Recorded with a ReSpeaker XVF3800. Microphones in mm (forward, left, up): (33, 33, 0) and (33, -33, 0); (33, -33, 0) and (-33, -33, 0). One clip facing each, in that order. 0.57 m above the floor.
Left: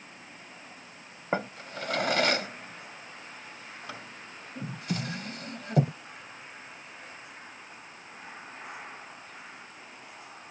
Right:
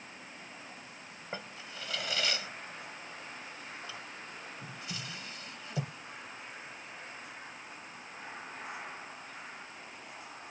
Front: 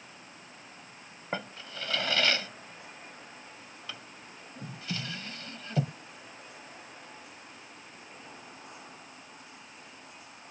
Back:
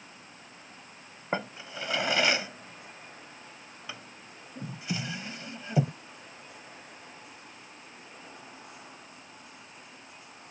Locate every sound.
1.3 s a drawer: 110° left